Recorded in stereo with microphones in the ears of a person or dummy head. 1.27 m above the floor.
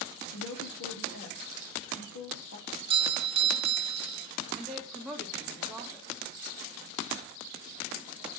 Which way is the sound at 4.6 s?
Centre (ahead or behind).